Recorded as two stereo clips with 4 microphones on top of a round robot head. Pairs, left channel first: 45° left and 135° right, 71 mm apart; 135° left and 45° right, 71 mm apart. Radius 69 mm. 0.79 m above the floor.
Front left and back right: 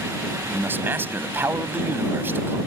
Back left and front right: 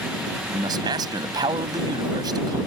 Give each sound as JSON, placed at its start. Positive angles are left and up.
{"t": 0.5, "sound": "a man speaking", "azimuth_deg": -70}